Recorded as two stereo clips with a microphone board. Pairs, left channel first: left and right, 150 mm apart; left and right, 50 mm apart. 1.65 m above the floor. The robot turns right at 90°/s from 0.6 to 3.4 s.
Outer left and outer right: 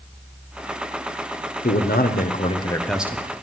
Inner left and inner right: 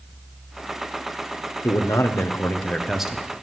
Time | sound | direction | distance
1.6 | a man speaking | 60° left | 1.3 m